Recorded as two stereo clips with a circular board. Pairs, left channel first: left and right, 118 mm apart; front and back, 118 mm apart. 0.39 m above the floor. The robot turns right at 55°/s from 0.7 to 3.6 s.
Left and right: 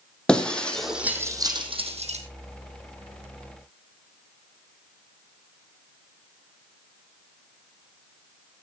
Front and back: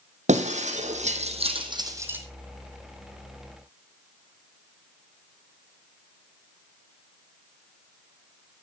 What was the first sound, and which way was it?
Breaking glass, 170° left.